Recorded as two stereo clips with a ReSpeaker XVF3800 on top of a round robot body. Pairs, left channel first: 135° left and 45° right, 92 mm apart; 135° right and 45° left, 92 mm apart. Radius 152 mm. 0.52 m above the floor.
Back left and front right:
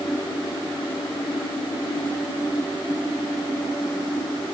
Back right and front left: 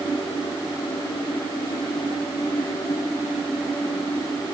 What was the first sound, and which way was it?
Only background noise.